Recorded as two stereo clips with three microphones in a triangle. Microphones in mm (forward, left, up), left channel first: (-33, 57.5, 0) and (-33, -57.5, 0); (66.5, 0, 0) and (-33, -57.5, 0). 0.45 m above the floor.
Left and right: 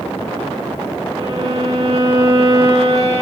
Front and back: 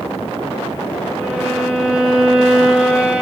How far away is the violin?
About 4 m.